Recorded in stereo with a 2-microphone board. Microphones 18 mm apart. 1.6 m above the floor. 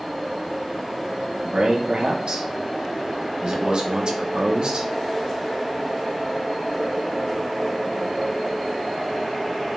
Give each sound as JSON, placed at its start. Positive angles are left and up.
{"t": 1.4, "sound": "a man speaking", "side_deg": -50, "distance_m": 1.1}